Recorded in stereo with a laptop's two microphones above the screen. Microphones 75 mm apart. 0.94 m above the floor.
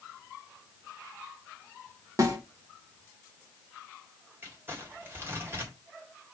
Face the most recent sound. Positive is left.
turn(degrees=-30)  # may be behind; listen again after turning